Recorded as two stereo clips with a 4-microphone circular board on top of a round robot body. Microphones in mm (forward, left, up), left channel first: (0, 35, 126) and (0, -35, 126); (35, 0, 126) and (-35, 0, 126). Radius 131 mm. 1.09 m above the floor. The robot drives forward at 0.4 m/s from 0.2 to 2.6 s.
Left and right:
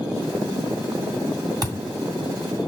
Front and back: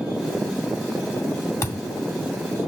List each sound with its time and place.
1.6 s a thud: 55° right, 2.5 m; by 1.9 s 60° right, 2.5 m